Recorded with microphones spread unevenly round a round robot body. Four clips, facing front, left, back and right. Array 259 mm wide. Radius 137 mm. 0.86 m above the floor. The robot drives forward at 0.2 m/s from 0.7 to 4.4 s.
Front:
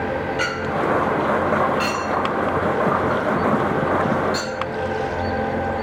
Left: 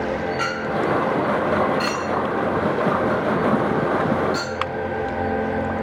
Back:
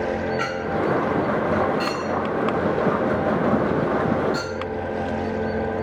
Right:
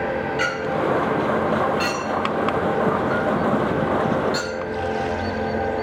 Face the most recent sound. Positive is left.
turn(degrees=-50)